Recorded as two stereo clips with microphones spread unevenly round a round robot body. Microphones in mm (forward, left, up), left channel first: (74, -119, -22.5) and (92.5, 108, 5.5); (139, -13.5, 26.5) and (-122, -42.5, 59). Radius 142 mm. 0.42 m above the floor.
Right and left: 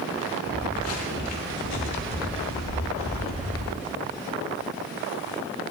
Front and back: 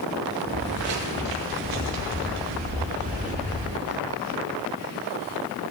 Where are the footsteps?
140° right, 4 m; by 3.7 s 110° right, 3.5 m.